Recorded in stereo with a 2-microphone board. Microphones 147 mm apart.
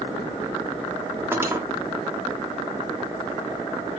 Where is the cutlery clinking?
15° right (ahead or behind), 0.7 m.